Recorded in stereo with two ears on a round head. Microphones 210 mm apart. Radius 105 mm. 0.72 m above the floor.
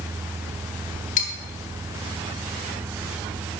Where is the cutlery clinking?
30° left (ahead or behind), 1.5 m.